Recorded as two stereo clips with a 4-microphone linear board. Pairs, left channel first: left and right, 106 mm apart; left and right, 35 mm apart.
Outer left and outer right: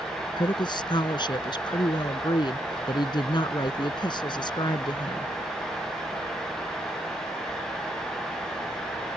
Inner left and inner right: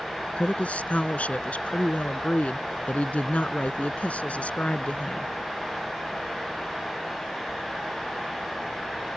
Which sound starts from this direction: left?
A woman speaking, at 0.4 s.